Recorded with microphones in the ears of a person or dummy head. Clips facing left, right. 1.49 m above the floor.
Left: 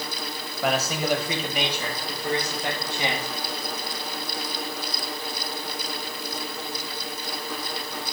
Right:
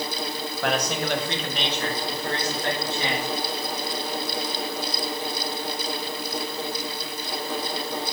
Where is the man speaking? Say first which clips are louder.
Left 1 dB; 5° left (ahead or behind), 1.7 m; by 3.3 s 15° left (ahead or behind), 3.5 m.